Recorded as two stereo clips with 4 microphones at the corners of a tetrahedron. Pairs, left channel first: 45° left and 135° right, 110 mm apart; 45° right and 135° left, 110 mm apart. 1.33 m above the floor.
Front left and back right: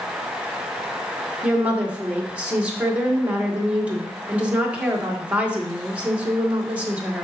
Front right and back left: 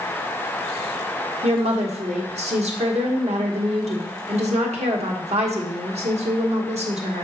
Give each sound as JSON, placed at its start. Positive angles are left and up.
{"t": 1.4, "sound": "a woman speaking", "azimuth_deg": 145, "distance_m": 1.5}